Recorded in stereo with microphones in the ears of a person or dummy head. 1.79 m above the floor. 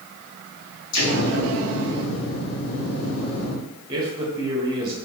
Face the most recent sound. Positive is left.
turn(degrees=-20)  # may be behind; listen again after turning